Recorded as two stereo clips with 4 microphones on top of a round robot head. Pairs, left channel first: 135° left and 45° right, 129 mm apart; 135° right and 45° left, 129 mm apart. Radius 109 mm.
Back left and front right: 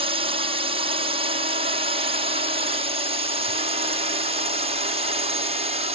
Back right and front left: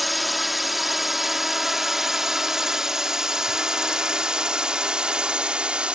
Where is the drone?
45° right; by 6.0 s 35° right.